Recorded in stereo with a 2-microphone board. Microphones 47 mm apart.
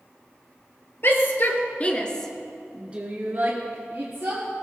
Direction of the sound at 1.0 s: 55° left (ahead or behind).